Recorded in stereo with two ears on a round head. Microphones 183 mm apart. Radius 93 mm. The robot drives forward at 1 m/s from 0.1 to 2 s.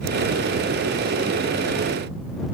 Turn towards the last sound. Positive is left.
No sound to turn to.